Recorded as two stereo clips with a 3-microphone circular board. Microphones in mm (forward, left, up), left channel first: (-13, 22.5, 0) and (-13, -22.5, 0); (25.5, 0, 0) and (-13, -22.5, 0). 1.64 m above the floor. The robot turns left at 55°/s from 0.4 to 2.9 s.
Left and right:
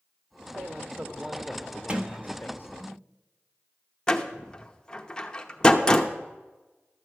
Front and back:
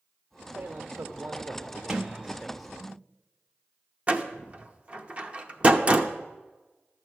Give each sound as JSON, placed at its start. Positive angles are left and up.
{"t": 0.6, "sound": "a man speaking", "azimuth_deg": -125, "distance_m": 0.6}
{"t": 1.9, "sound": "a sliding door", "azimuth_deg": -95, "distance_m": 0.8}
{"t": 4.1, "sound": "a door slam", "azimuth_deg": 155, "distance_m": 0.8}